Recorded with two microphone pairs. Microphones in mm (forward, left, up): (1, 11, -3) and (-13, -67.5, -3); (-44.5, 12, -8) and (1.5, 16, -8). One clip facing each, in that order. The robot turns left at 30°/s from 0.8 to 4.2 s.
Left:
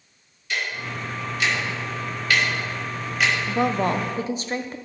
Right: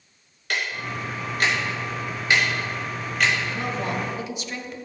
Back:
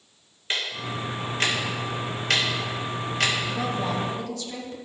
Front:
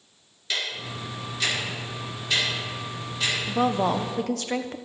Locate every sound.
0.5 s ticking: 120° right, 2.5 m; by 3.3 s 165° left, 2.5 m
3.5 s a woman speaking: 55° left, 0.8 m; by 4.8 s 30° left, 0.8 m